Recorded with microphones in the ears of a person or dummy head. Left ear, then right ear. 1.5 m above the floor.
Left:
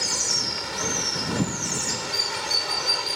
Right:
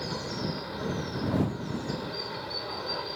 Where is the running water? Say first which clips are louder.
Left 10 dB; 65° left (ahead or behind).